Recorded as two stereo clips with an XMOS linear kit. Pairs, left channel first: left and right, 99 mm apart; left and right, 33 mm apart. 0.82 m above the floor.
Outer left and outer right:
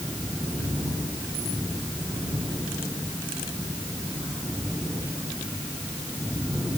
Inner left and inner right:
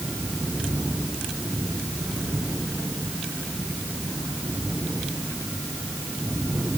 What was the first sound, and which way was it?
Only background noise.